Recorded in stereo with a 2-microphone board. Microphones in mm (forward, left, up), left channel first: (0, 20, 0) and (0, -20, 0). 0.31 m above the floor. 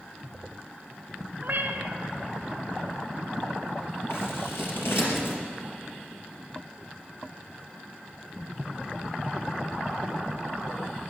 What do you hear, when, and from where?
1.4 s a cat meowing: 55° right (ahead or behind), 1.5 m
4.1 s scissors: 70° left (ahead or behind), 3.5 m